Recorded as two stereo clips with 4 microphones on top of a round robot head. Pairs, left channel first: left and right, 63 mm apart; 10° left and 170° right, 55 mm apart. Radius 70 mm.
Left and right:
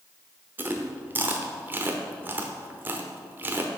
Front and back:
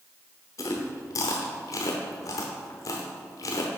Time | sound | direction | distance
0.6 | chewing | 30° right | 0.8 m